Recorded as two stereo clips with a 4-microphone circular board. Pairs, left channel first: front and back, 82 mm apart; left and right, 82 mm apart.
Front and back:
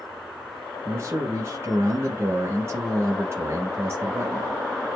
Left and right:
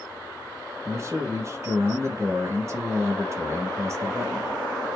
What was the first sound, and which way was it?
A man speaking, 130° right.